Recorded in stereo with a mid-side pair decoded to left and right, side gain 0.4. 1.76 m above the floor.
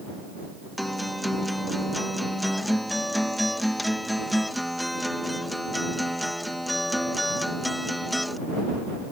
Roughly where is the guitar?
Ahead.